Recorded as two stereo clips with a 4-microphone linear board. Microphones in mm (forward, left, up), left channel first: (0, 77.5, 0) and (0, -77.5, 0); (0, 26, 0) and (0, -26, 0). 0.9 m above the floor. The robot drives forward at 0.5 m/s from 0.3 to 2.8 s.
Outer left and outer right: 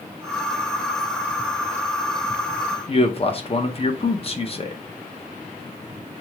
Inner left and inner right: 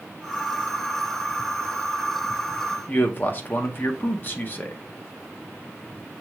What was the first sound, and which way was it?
A man speaking, 40° left (ahead or behind).